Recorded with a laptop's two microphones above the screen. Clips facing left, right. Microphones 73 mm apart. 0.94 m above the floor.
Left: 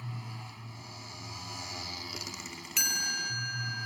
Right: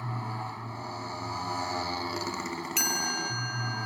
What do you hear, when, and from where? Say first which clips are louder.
0.0 s a motorcycle: right 9 dB; 45° right (ahead or behind)
2.8 s a chime: right 1 dB; centre (ahead or behind)